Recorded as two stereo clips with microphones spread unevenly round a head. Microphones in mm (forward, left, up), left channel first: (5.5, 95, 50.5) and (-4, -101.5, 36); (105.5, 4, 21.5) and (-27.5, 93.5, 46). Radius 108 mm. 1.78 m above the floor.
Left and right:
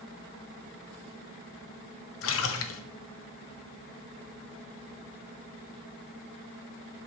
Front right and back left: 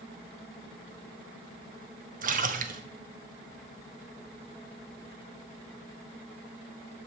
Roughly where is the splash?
Left.